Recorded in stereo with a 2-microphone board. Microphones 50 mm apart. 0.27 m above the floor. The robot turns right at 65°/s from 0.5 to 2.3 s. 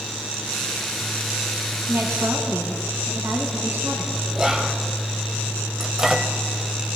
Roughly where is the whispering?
Centre.